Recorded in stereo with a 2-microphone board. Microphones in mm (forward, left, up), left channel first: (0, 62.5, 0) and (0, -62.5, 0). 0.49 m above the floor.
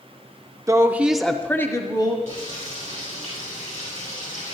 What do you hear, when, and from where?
0.7 s a woman speaking: 25° right (ahead or behind), 0.7 m; by 2.2 s 35° left (ahead or behind), 0.9 m
2.3 s frying: 70° left (ahead or behind), 5.5 m